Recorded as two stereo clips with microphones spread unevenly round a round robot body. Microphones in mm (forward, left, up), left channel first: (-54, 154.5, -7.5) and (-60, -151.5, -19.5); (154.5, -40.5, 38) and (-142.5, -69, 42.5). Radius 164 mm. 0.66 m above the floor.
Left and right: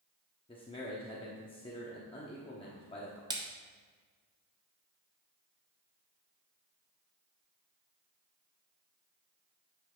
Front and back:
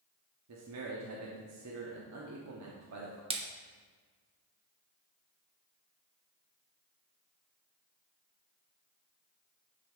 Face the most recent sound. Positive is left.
turn(degrees=-135)